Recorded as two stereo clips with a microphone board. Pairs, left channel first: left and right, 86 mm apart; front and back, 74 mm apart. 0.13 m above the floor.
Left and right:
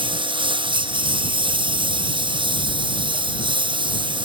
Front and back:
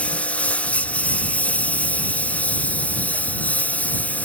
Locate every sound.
0.0 s a lawn mower: 75° right; by 4.2 s 70° right